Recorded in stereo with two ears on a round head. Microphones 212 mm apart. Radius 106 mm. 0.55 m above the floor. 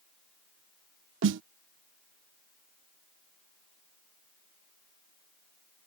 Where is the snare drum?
55° right (ahead or behind).